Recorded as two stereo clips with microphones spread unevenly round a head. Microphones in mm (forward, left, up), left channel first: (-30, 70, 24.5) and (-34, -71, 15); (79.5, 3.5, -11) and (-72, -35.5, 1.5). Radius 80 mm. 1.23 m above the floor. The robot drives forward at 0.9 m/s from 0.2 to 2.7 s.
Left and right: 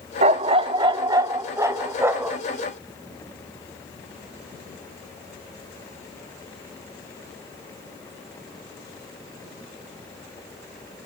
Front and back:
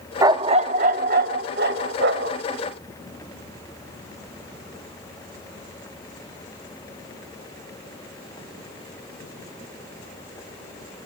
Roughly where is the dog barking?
Behind right.